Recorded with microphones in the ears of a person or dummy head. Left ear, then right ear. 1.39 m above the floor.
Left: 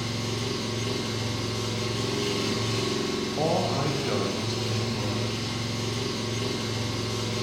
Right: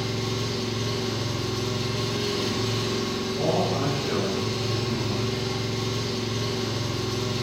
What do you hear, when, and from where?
0.0 s an engine running: 15° left (ahead or behind), 0.9 m
3.4 s a man speaking: 70° left (ahead or behind), 0.6 m